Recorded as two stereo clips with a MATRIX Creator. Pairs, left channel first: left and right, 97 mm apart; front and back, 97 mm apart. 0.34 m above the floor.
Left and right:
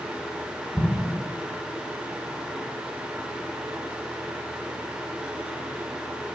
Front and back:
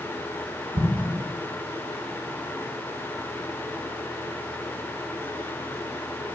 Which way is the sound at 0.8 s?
175° left.